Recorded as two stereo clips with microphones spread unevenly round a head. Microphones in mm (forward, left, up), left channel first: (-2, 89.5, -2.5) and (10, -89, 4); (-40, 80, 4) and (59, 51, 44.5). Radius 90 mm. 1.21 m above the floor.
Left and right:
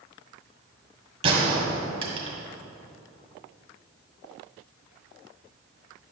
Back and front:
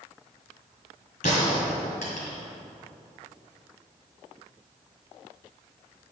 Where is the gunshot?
140° right, 1.8 m.